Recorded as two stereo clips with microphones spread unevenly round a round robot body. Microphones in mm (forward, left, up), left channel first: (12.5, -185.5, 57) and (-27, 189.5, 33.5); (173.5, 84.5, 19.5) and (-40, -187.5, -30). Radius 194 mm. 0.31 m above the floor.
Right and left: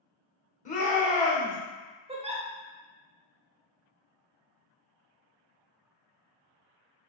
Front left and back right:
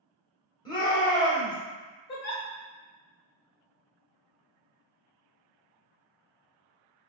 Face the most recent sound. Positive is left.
turn(degrees=75)